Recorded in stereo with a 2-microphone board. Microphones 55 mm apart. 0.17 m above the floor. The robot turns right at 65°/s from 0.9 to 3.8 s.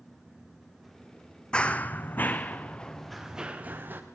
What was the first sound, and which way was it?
Running footsteps, 15° left (ahead or behind).